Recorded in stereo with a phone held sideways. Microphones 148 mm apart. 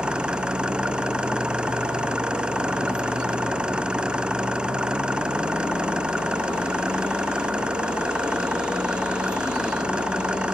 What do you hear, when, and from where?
0.0 s an engine running: 5° right (ahead or behind)